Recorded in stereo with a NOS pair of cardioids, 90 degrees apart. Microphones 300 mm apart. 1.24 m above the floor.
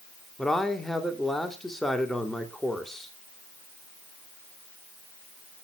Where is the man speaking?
Straight ahead, 2.5 m.